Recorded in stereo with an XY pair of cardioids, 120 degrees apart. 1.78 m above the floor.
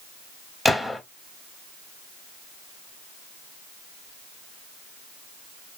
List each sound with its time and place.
0.7 s a gunshot: 5° left, 0.6 m